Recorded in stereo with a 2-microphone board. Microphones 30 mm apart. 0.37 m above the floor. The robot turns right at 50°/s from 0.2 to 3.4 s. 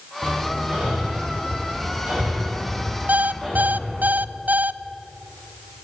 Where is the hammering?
45° right (ahead or behind), 9 m; by 4.1 s 25° left (ahead or behind), 9 m.